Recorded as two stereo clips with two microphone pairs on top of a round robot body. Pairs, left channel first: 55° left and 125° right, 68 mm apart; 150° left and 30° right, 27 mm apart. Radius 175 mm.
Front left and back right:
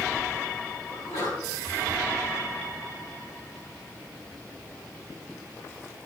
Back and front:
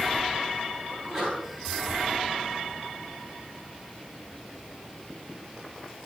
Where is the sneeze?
40° left, 8.5 m.